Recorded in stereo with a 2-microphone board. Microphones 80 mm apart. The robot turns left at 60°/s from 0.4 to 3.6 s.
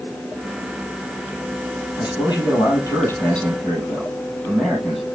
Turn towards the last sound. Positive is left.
turn(degrees=5)